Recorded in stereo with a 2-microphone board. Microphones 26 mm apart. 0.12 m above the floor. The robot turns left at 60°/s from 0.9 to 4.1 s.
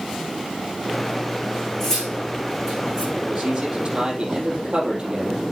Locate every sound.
1.8 s cutlery clinking: 20° left (ahead or behind), 4 m; by 3.1 s 55° right (ahead or behind), 4 m
3.2 s a man speaking: 80° right, 3.5 m; by 5.4 s 140° right, 3.5 m